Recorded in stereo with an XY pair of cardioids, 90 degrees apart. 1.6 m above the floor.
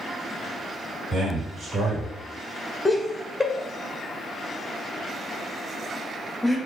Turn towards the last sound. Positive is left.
turn(degrees=10)